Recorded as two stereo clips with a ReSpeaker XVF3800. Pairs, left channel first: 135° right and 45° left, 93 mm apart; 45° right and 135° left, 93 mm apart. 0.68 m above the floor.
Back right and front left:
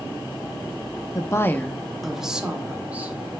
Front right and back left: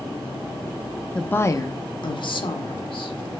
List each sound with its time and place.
1.1 s a woman speaking: 120° right, 0.7 m; by 3.2 s 25° right, 1.9 m